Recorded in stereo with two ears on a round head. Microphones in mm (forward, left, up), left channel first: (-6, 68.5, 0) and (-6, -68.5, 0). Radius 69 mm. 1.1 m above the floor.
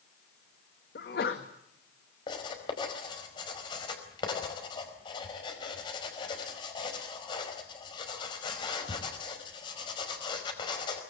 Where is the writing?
30° left (ahead or behind), 4.5 m.